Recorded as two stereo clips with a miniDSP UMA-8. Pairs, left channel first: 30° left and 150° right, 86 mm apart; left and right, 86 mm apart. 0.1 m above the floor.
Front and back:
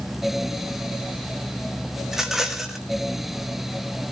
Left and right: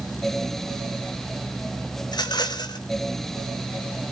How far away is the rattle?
About 1.4 m.